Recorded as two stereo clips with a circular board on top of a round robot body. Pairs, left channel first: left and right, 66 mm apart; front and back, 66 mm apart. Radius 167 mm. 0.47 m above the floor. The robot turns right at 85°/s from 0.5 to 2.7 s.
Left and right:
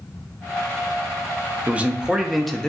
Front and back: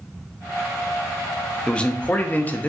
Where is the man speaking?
60° right, 0.7 m; by 2.7 s 25° left, 0.7 m.